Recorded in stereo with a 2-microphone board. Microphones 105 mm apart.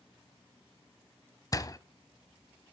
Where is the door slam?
35° left (ahead or behind), 0.8 m.